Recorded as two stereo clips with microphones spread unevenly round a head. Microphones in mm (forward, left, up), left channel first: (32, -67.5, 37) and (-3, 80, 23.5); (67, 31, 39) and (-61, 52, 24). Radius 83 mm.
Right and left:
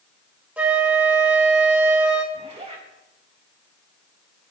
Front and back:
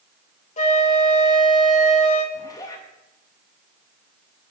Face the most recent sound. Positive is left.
turn(degrees=50)